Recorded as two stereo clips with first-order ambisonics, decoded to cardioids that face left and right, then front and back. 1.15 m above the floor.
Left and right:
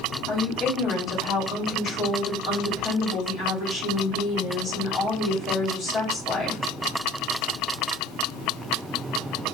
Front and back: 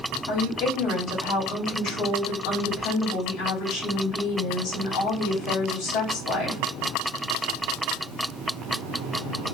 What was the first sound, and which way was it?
A woman speaking, 30° left.